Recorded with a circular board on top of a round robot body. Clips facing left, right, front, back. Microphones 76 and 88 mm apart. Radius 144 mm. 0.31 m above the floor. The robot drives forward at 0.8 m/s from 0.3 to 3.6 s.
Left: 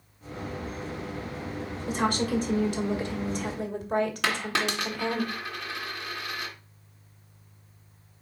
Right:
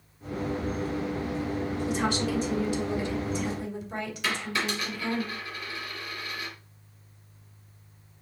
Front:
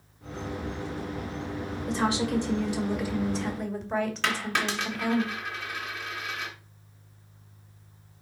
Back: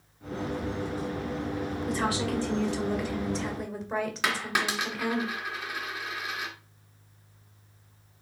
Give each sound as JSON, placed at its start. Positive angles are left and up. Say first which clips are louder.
{"t": 1.9, "sound": "a woman speaking", "louder": "left 3 dB, front 3 dB", "azimuth_deg": 60, "distance_m": 3.0}
{"t": 4.2, "sound": "a dropped coin", "louder": "left 2 dB, even", "azimuth_deg": 100, "distance_m": 2.0}